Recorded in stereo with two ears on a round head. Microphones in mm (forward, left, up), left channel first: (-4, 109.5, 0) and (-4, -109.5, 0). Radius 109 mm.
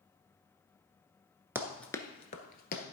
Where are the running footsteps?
10° right (ahead or behind), 0.8 m; by 2.8 s 40° left (ahead or behind), 1.2 m.